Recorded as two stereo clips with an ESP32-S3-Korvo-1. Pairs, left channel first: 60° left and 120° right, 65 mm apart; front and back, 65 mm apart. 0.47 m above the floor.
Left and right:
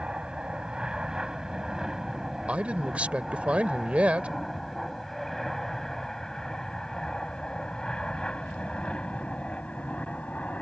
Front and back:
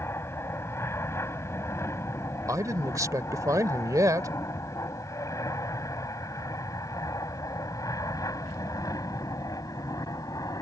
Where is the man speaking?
170° left.